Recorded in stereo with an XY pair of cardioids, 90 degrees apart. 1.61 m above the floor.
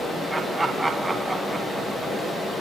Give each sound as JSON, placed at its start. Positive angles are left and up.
{"t": 0.3, "sound": "laughter", "azimuth_deg": -20, "distance_m": 2.0}